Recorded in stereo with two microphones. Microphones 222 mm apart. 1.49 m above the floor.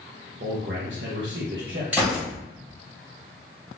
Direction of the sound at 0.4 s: 55° right (ahead or behind).